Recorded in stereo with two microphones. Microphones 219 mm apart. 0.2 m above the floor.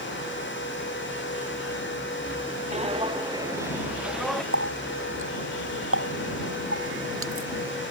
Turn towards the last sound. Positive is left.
turn(degrees=-75)  # may be behind; listen again after turning